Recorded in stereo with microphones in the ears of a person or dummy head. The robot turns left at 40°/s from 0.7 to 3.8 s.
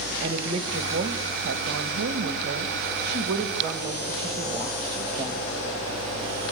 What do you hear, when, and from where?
0.2 s a woman speaking: 35° right, 1.9 m; by 5.6 s 160° right, 1.9 m